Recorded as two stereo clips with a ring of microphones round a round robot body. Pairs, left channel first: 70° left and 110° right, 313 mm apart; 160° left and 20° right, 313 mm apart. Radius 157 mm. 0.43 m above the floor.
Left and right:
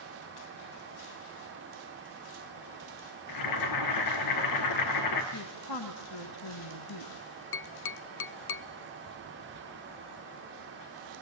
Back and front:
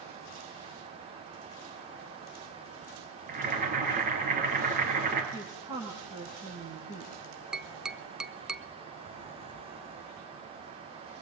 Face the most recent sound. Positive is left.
turn(degrees=65)